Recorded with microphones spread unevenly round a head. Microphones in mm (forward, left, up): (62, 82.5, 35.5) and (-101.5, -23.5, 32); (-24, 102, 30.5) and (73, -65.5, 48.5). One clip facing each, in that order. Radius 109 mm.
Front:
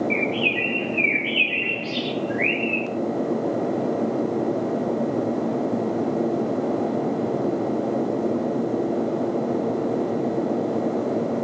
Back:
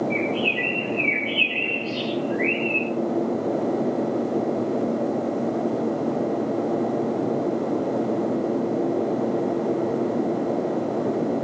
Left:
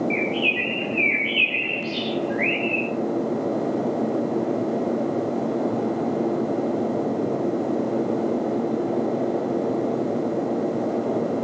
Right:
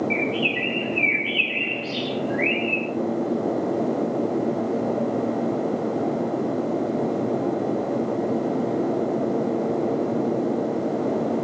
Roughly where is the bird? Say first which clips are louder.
Even, even; ahead.